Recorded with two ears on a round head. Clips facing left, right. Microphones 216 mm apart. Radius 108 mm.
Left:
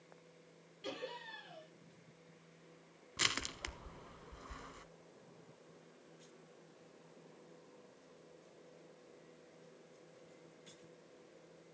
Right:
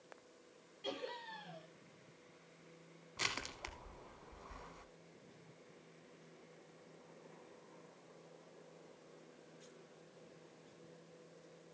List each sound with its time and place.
0.8 s laughter: 20° left (ahead or behind), 7 m
3.2 s crushing: 25° left (ahead or behind), 0.7 m